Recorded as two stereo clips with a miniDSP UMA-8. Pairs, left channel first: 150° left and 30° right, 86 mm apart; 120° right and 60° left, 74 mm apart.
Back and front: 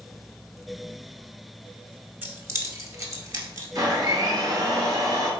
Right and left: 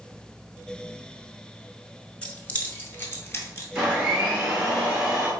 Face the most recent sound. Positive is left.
turn(degrees=-10)